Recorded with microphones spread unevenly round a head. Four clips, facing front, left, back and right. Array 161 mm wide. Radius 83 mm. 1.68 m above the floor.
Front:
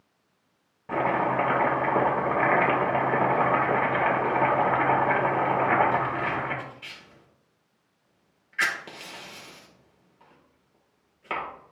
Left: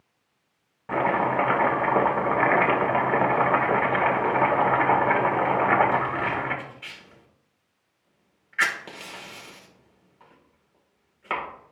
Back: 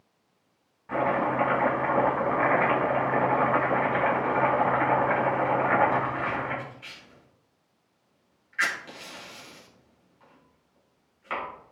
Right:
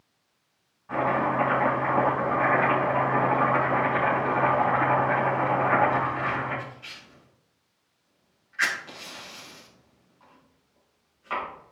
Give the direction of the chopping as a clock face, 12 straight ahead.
10 o'clock.